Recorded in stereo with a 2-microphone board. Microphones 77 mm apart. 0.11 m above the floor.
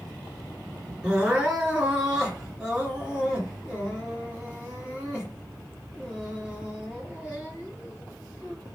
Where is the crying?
10° right (ahead or behind), 1.9 m.